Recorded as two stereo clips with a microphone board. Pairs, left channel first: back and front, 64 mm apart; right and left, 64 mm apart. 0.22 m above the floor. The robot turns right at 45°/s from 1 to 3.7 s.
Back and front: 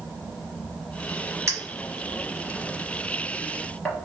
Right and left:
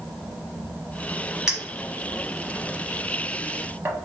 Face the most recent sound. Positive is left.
turn(degrees=115)